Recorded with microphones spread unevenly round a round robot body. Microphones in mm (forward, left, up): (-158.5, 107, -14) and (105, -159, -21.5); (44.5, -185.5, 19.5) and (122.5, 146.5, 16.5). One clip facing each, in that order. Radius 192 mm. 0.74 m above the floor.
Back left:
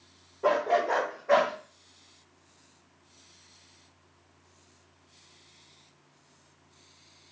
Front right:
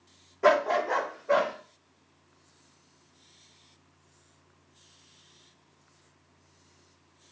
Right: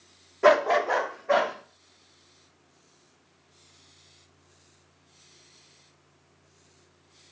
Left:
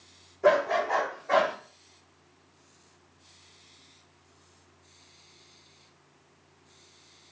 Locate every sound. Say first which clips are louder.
0.4 s a dog barking: front right 1 dB, right 3 dB; 85° right, 0.7 m; by 1.5 s 160° right, 1.8 m